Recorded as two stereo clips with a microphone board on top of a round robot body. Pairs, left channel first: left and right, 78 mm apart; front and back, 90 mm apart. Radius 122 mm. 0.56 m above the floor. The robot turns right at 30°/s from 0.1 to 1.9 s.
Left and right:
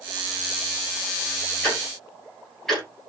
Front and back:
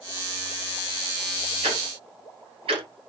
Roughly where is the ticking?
Behind.